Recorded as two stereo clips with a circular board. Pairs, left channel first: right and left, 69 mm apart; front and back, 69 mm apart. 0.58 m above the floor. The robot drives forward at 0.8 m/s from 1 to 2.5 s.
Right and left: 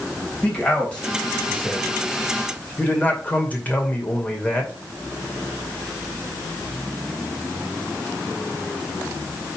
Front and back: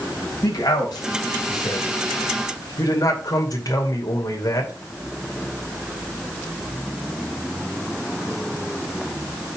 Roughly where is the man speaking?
Ahead.